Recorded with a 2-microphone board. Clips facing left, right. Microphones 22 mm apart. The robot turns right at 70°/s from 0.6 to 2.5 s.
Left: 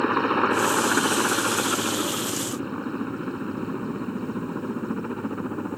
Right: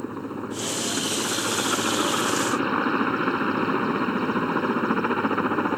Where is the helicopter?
110° left; by 5.8 s 115° right.